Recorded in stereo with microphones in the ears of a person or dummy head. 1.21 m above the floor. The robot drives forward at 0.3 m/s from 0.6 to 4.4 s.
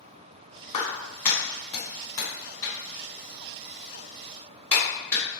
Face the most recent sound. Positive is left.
turn(degrees=10)  # may be behind; listen again after turning